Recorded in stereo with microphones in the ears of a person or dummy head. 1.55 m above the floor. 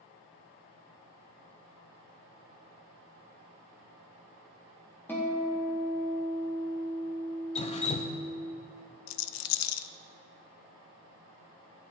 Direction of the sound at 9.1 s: 80° left.